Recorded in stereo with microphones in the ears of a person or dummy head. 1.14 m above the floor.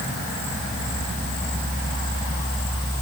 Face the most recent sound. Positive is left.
No sound to turn to.